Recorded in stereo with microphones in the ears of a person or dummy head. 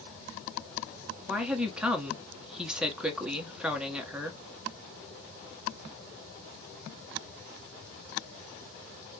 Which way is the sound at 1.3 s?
5° right (ahead or behind).